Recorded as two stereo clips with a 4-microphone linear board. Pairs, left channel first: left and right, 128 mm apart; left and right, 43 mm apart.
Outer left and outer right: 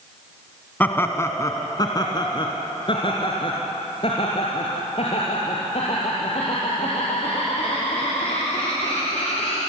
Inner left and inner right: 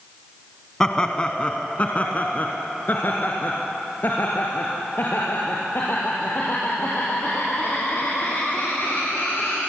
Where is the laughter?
15° left (ahead or behind), 1.1 m; by 9.6 s 55° left (ahead or behind), 5.5 m.